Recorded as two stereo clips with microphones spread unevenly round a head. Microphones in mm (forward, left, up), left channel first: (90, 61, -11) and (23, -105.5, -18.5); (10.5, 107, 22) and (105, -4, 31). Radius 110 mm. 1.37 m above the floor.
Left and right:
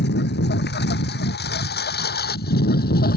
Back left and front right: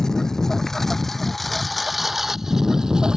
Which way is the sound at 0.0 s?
45° left.